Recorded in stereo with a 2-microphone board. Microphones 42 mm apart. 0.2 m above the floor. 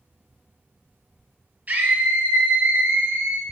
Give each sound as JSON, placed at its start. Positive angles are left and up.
{"t": 1.7, "sound": "a scream", "side_deg": -40, "distance_m": 3.5}